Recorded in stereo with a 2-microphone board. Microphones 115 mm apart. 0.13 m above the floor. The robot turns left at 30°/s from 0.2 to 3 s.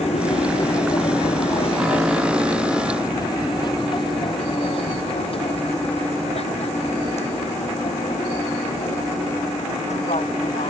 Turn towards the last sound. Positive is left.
turn(degrees=65)  # may be behind; listen again after turning